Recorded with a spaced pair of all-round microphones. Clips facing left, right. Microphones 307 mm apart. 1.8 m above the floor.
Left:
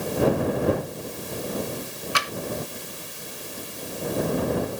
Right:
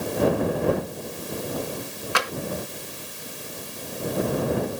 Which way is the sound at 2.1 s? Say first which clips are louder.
Right 8 dB; 70° right (ahead or behind).